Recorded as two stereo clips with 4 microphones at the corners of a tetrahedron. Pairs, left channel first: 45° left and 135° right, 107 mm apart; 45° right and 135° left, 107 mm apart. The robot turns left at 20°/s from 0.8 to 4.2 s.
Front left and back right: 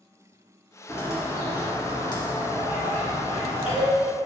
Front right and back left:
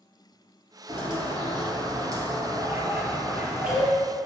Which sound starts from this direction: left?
A bird, at 0.9 s.